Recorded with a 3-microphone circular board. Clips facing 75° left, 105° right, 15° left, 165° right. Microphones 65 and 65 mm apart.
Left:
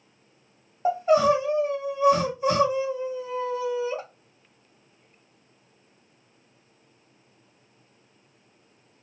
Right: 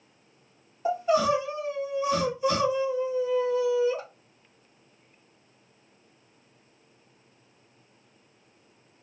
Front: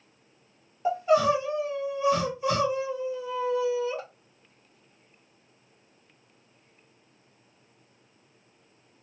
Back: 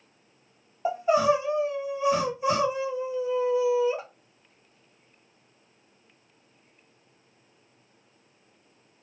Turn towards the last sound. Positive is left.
turn(degrees=125)